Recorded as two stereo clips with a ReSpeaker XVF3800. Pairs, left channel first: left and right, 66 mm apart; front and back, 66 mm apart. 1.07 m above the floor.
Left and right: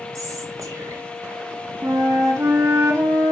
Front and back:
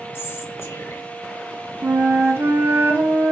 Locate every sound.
0.1 s whispering: 55° right, 1.9 m
1.8 s a flute: 125° right, 1.3 m